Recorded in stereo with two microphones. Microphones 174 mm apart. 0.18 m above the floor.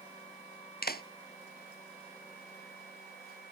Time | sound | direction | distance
0.8 | a clap | 65° left (ahead or behind) | ?